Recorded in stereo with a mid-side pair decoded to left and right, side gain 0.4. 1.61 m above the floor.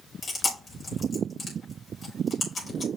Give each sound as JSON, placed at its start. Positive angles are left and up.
{"t": 0.2, "sound": "chewing", "azimuth_deg": 45, "distance_m": 5.0}